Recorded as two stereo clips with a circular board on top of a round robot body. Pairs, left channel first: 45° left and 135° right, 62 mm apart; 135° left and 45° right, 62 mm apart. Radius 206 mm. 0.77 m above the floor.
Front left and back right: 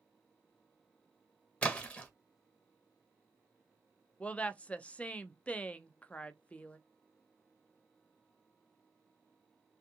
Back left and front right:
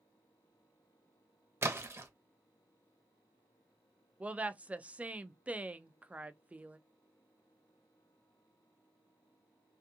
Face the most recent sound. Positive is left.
turn(degrees=0)